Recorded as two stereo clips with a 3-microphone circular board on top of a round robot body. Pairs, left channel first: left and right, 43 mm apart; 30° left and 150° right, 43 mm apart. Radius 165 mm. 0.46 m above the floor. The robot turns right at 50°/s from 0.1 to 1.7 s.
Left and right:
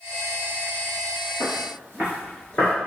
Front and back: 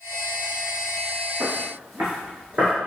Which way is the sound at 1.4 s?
120° right.